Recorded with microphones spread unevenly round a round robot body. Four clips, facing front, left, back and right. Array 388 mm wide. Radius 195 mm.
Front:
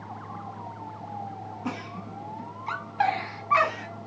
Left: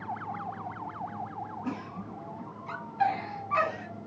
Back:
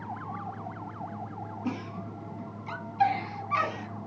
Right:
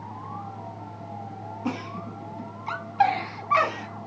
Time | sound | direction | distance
1.6 | a giggle | 70° right | 0.7 m